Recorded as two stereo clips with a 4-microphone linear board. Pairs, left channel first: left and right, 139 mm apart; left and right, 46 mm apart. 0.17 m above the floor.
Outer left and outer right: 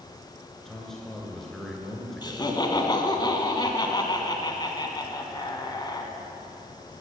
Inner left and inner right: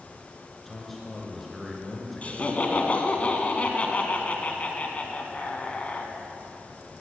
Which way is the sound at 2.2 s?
30° left (ahead or behind).